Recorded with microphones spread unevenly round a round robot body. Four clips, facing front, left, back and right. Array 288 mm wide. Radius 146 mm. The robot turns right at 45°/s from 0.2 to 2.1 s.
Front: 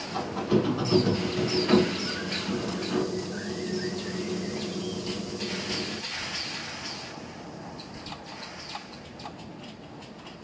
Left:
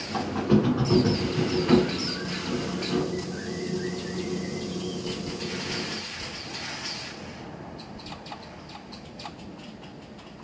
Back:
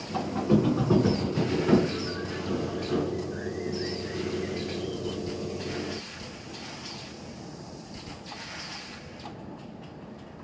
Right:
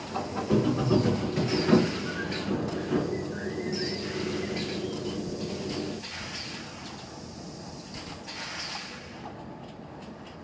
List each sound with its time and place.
0.1 s a squeak: 130° left, 1.9 m; by 6.0 s 140° right, 1.9 m